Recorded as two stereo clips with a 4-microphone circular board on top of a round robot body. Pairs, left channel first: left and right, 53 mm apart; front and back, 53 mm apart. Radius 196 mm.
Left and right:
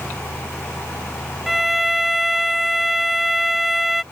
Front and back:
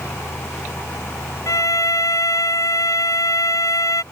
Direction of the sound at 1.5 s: Straight ahead.